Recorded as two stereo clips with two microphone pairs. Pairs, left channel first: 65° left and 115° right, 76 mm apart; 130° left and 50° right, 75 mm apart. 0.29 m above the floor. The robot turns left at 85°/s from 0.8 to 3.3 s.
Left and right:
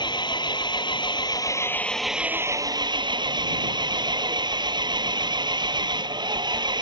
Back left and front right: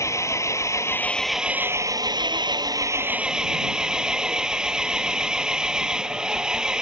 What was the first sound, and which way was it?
An engine running, 80° left.